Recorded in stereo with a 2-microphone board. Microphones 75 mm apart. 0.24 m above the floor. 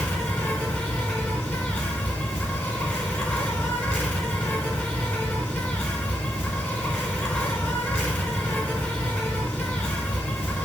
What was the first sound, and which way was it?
An insect, 15° left (ahead or behind).